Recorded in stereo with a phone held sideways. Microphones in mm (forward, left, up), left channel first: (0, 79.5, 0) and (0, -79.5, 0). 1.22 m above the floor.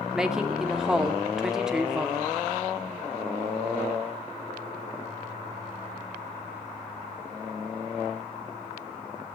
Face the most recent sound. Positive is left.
turn(degrees=-5)  # may be behind; listen again after turning